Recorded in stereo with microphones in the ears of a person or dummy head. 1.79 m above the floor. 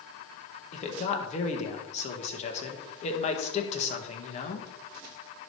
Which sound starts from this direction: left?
A man speaking, at 0.7 s.